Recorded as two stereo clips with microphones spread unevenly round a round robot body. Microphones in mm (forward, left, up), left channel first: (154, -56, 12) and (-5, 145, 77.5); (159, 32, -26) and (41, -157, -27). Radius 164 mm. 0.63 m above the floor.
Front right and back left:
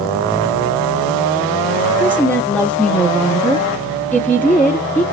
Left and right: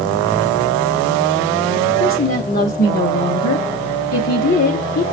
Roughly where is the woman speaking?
Ahead left.